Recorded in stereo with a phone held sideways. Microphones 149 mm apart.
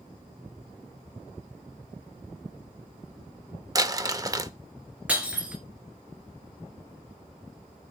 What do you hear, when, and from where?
3.8 s crumpling: 25° right (ahead or behind), 0.7 m
5.1 s breaking glass: 10° right (ahead or behind), 2.5 m